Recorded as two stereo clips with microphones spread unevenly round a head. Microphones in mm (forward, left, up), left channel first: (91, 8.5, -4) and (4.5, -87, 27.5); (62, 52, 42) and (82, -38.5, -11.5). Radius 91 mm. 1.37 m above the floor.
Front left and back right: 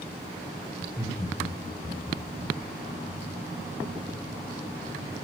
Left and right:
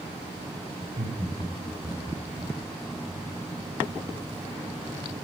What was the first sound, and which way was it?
Laughter, 65° right.